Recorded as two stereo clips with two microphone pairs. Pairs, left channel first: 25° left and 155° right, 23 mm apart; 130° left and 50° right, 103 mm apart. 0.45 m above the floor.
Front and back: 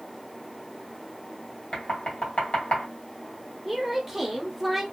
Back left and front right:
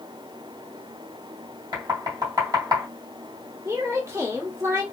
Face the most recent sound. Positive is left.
turn(degrees=-85)